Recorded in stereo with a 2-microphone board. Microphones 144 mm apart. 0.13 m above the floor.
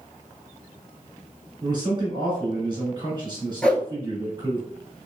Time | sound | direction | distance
1.6 | a man speaking | 35° right (ahead or behind) | 1.7 m
3.6 | a whoosh | 10° left (ahead or behind) | 0.6 m